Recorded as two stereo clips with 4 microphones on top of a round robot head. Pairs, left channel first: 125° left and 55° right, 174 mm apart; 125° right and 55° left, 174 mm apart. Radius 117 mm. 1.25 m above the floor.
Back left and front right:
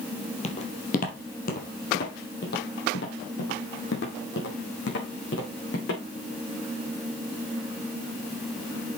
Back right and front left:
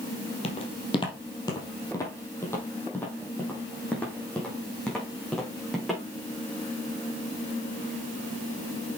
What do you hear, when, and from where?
0.4 s footsteps: straight behind, 2 m; by 6.0 s 145° left, 5 m